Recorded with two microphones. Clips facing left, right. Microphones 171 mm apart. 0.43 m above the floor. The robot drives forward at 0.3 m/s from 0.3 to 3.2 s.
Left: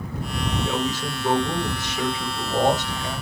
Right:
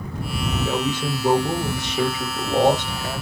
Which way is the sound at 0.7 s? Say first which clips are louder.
Right 2 dB; 30° right (ahead or behind).